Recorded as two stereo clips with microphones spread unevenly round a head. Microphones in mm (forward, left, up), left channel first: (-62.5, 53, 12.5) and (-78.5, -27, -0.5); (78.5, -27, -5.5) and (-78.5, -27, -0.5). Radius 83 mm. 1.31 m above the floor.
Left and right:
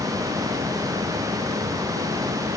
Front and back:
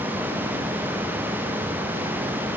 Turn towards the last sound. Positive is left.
No sound to turn to.